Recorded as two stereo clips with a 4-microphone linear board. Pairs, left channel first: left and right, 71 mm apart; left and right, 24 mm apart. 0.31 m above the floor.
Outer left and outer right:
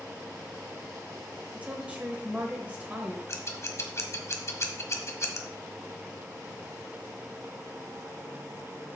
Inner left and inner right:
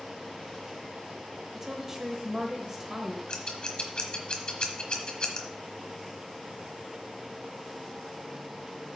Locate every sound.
1.5 s a woman speaking: 20° right (ahead or behind), 1.1 m
3.3 s scissors: 40° left (ahead or behind), 1.2 m